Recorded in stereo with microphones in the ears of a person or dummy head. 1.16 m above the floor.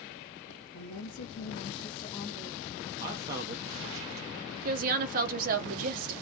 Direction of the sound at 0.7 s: 70° left (ahead or behind).